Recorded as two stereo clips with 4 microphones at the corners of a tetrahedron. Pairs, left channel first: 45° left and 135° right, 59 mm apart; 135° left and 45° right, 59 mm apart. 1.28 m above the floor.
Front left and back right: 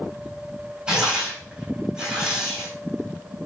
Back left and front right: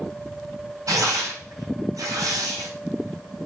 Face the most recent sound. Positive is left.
turn(degrees=-60)